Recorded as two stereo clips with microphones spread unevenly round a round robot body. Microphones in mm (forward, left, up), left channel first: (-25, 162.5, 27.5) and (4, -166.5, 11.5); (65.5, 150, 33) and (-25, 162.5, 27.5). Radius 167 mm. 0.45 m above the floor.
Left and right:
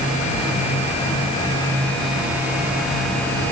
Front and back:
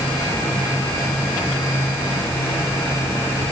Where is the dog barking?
I don't hear a dog barking.